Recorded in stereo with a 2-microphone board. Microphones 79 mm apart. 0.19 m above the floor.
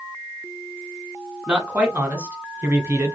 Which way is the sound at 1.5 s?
15° right (ahead or behind).